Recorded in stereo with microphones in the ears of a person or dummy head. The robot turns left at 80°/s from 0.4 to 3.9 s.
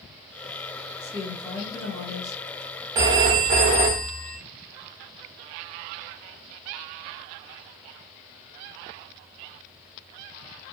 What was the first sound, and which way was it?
A woman speaking, 140° right.